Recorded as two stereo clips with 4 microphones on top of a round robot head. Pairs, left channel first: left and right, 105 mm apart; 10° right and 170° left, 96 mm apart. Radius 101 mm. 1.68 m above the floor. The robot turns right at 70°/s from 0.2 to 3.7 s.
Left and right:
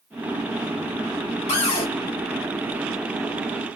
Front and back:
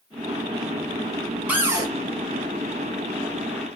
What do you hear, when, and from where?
1.5 s a cupboard door: 95° left, 0.7 m; by 1.9 s 125° left, 0.7 m